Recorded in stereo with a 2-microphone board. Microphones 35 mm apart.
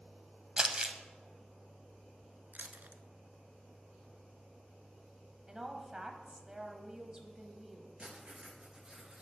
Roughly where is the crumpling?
Right.